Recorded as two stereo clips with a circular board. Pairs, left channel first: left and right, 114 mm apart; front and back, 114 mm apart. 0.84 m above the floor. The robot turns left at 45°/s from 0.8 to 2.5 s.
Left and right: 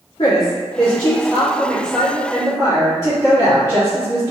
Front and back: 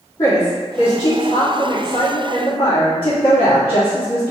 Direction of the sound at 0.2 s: 45° left.